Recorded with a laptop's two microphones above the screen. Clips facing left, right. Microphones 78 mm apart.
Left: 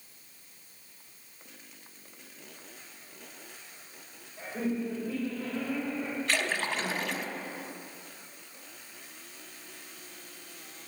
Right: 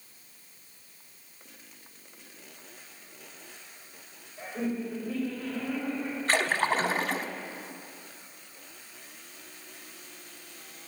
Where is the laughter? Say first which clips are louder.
Even; 35° left (ahead or behind), 2.5 m.